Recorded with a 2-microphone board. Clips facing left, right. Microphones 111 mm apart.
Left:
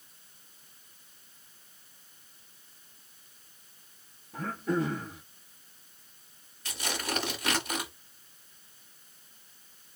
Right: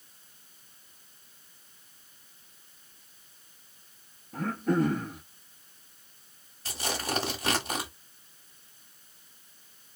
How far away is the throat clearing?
About 1.1 m.